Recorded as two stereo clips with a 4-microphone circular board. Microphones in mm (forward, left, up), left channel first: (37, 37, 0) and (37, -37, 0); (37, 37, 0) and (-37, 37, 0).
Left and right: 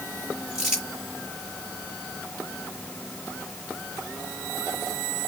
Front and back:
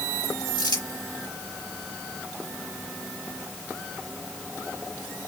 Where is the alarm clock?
I don't hear an alarm clock.